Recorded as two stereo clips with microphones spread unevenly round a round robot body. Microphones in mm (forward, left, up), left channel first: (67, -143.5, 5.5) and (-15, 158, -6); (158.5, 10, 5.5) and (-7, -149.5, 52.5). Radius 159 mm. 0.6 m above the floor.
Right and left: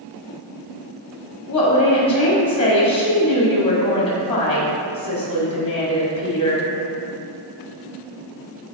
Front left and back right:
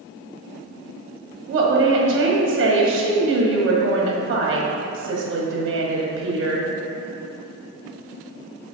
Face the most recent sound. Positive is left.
turn(degrees=-145)